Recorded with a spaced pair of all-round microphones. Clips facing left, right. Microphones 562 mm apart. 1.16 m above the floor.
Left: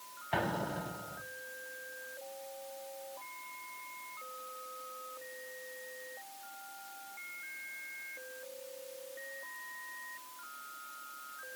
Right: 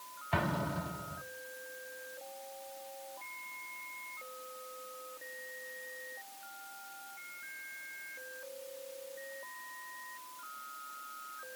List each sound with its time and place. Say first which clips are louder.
0.3 s an explosion: even; 30° right (ahead or behind), 0.9 m